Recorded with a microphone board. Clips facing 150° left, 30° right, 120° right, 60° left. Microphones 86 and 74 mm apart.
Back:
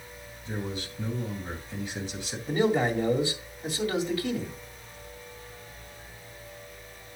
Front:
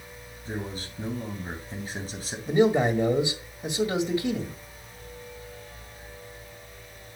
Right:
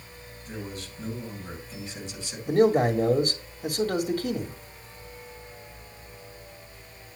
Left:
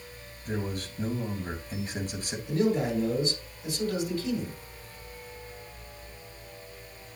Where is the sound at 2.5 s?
95° right, 1.8 m.